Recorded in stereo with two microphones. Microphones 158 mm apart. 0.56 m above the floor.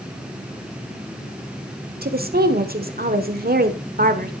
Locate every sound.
2.0 s a woman speaking: 65° right (ahead or behind), 1.3 m